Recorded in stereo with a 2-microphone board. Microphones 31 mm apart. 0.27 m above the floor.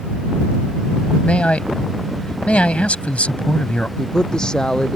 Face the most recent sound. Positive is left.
turn(degrees=25)  # may be behind; listen again after turning